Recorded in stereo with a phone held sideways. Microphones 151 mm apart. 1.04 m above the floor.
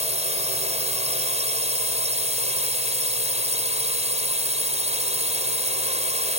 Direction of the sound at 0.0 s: 45° right (ahead or behind).